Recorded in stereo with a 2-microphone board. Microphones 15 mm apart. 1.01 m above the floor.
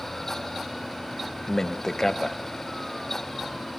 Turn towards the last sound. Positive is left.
turn(degrees=30)  # may be behind; listen again after turning